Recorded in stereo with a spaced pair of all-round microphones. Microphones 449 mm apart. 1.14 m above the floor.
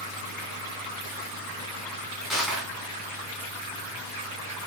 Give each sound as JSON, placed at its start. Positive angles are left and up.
{"t": 2.3, "sound": "crushing", "side_deg": 0, "distance_m": 1.3}